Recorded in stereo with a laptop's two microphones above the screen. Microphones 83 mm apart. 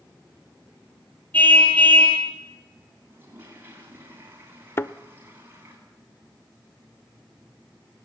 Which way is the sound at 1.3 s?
20° left (ahead or behind).